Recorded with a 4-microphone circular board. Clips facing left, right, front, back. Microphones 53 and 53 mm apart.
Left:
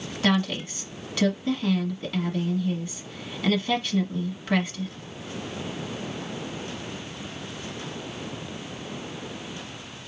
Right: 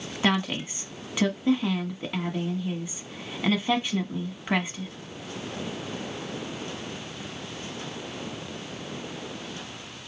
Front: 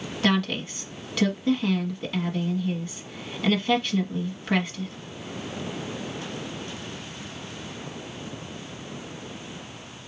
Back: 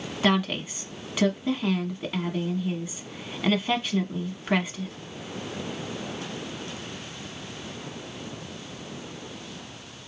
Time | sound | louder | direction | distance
0.2 | a woman speaking | left 1 dB, even | 125° right | 1.0 m